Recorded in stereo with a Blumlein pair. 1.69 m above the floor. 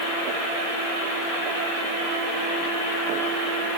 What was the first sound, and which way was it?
Only background noise.